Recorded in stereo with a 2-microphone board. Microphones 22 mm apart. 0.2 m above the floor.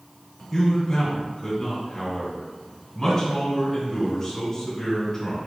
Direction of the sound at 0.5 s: 20° left (ahead or behind).